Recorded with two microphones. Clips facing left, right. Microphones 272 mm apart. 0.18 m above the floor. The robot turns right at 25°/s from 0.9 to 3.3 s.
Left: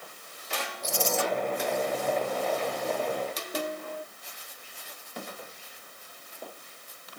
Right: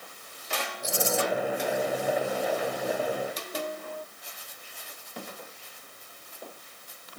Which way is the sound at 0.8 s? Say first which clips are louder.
Right 1 dB; 60° right (ahead or behind).